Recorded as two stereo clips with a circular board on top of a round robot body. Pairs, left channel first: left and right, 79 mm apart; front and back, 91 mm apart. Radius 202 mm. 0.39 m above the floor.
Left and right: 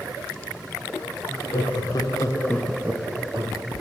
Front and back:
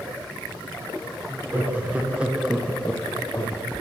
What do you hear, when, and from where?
1.3 s laughter: 110° left, 1.9 m; by 3.6 s 65° right, 1.4 m